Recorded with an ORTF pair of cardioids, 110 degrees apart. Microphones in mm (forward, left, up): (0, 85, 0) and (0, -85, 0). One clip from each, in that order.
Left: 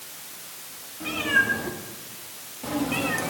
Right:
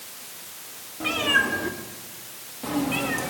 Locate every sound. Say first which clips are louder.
1.0 s a cat meowing: right 1 dB; 45° right, 2.5 m; by 3.3 s 10° left, 1.4 m